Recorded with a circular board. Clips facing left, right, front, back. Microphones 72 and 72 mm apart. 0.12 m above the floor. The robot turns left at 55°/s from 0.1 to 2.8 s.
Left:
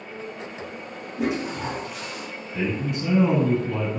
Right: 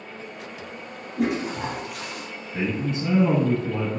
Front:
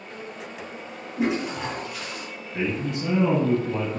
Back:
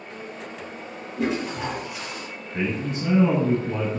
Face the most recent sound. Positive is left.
turn(degrees=-130)